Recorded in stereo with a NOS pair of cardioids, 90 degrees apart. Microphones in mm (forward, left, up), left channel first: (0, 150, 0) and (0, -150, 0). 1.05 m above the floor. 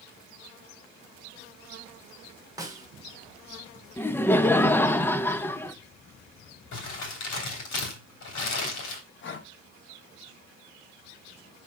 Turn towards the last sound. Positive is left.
turn(degrees=40)